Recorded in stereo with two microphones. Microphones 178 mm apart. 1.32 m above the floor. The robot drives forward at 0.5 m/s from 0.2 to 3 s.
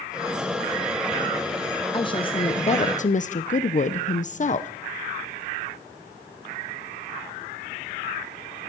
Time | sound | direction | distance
1.9 | a woman speaking | 25° left (ahead or behind) | 1.1 m